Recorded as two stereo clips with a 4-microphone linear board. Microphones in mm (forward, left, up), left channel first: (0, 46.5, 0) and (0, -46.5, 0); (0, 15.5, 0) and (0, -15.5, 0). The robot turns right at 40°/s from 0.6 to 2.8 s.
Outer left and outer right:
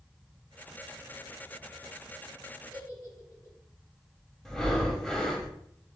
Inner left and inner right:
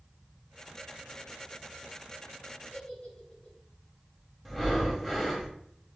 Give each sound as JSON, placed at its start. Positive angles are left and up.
{"t": 2.7, "sound": "a giggle", "side_deg": 40, "distance_m": 2.0}
{"t": 4.5, "sound": "breathing", "side_deg": 5, "distance_m": 0.9}